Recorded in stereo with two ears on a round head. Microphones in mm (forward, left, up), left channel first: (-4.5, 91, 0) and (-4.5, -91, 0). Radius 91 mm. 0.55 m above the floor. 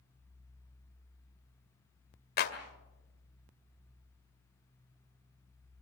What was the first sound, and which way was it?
A clap, 50° left (ahead or behind).